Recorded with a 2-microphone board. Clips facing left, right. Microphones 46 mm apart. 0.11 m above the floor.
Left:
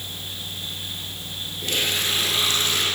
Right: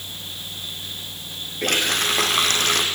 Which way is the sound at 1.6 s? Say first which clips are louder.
Right 4 dB; 60° right (ahead or behind).